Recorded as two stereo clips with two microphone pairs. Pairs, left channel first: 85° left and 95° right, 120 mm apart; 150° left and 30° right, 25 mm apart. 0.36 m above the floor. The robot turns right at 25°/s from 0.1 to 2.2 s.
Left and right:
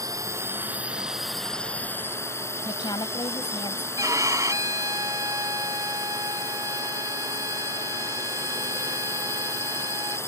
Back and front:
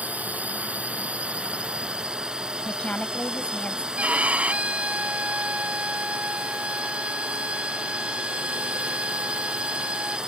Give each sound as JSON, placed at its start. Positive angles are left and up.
{"t": 0.0, "sound": "a drone", "azimuth_deg": -35}
{"t": 2.6, "sound": "a woman speaking", "azimuth_deg": 130}
{"t": 4.0, "sound": "a violin", "azimuth_deg": -30}